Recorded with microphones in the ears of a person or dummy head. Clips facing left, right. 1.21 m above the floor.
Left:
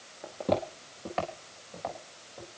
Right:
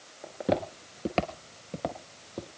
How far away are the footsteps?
About 1.2 m.